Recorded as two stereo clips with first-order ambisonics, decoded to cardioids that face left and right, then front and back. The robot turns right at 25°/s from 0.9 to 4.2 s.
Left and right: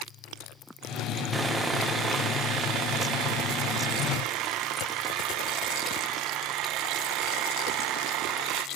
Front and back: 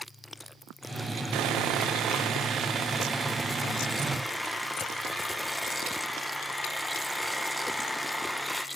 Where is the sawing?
165° right, 1.0 m; by 8.7 s 95° right, 1.0 m.